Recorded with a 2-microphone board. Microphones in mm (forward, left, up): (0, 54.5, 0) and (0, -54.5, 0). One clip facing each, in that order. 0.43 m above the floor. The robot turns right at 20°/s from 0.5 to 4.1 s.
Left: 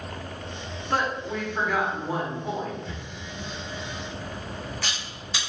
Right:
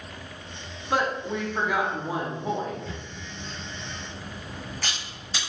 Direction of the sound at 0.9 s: 10° right (ahead or behind).